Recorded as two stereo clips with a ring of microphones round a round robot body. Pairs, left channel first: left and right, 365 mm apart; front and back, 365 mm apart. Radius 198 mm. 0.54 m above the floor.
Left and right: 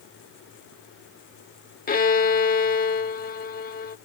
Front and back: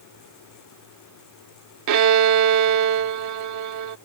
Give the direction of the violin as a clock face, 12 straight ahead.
7 o'clock.